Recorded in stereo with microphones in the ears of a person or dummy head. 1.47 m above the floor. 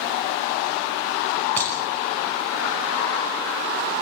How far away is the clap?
About 6 m.